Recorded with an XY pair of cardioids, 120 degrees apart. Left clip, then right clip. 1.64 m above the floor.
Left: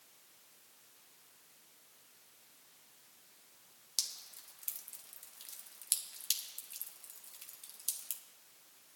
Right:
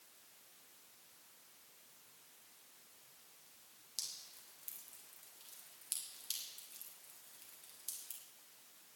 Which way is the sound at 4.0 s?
50° left.